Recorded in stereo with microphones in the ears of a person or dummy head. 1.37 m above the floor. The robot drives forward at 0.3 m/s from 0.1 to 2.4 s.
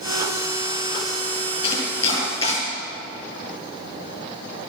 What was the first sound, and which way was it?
Chopping, 35° left (ahead or behind).